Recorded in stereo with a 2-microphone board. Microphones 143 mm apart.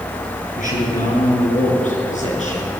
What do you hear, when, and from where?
0.6 s a man speaking: 65° left (ahead or behind), 7 m; by 2.8 s 55° left (ahead or behind), 6.5 m